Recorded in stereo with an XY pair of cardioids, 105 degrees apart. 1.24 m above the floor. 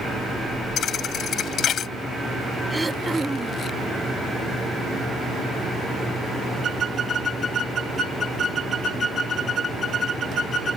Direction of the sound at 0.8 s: 65° left.